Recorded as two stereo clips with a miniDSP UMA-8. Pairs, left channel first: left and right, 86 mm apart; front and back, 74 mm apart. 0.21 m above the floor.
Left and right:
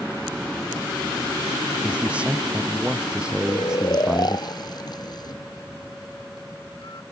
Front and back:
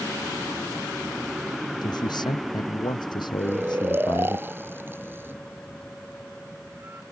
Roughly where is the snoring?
Behind left.